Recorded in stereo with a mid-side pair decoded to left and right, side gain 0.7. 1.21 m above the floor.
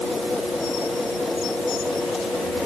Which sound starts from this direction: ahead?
A machine running, at 0.0 s.